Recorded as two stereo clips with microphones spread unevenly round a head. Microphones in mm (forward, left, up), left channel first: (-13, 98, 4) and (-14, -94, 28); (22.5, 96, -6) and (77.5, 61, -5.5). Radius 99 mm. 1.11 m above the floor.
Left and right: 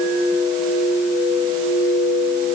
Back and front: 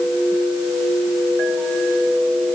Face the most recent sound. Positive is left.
No sound to turn to.